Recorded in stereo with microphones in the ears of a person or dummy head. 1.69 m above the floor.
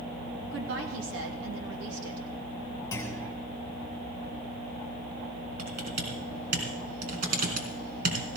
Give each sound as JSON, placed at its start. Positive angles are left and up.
{"t": 0.5, "sound": "a woman speaking", "side_deg": -80, "distance_m": 2.5}
{"t": 2.9, "sound": "a clunk", "side_deg": 20, "distance_m": 3.0}
{"t": 5.6, "sound": "typing on a keyboard", "side_deg": -55, "distance_m": 3.0}